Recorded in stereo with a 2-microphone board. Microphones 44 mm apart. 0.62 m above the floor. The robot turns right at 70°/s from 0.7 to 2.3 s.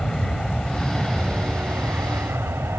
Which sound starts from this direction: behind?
An aircraft, at 0.0 s.